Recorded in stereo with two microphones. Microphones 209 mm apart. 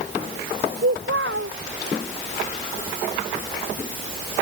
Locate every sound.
0.8 s a child speaking: 75° right (ahead or behind)